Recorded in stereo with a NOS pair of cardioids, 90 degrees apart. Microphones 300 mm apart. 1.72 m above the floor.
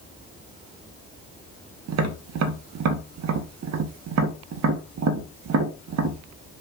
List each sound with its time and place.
1.9 s tapping: 65° right, 1.8 m